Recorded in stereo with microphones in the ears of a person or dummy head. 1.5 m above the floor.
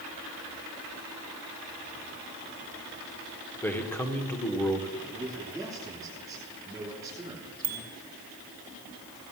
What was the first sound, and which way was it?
A man speaking, 5° left (ahead or behind).